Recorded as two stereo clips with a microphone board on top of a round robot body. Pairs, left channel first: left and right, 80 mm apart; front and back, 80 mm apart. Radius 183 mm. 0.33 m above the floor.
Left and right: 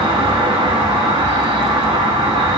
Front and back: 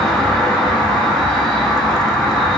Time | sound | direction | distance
0.0 | an insect | 85° right | 0.7 m